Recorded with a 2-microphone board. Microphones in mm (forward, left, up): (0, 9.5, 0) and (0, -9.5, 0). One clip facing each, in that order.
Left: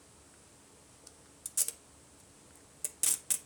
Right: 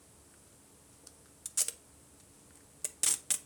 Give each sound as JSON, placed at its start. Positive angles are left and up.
{"t": 1.4, "sound": "tape being pulled", "side_deg": -20, "distance_m": 0.7}